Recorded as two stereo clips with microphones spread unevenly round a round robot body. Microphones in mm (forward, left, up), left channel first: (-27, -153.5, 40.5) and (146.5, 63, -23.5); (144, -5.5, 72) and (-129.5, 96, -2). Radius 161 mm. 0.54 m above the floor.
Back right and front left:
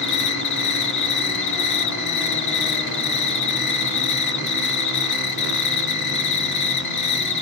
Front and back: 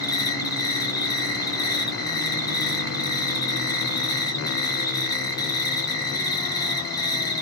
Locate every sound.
0.0 s an insect: 110° right, 1.6 m